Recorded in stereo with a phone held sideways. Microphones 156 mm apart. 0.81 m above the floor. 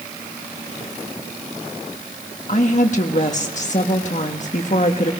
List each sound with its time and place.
2.5 s a woman speaking: 50° left (ahead or behind), 1.4 m